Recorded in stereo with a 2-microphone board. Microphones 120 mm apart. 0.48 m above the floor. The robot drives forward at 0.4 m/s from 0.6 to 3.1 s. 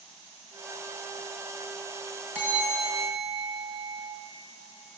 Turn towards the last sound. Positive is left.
turn(degrees=-15)  # may be behind; listen again after turning